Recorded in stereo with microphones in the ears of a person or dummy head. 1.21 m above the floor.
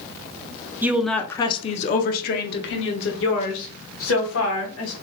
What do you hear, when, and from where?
0.8 s a woman speaking: 15° right (ahead or behind), 0.6 m; by 4.9 s 75° left (ahead or behind), 2 m